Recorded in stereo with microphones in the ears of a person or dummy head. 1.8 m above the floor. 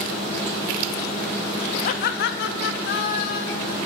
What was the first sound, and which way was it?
Laughter, 50° left (ahead or behind).